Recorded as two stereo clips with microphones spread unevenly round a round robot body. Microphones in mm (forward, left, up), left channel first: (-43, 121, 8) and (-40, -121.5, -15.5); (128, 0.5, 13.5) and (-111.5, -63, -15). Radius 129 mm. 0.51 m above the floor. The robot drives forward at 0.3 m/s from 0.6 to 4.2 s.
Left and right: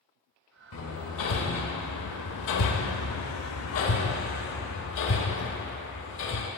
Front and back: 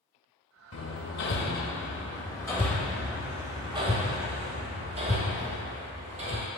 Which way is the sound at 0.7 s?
55° left.